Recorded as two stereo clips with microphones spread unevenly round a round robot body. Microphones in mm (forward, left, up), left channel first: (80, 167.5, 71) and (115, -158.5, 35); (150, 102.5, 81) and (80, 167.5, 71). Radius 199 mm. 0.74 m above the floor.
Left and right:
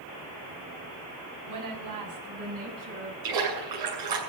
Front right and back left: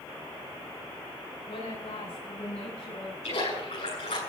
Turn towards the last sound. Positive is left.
turn(degrees=-70)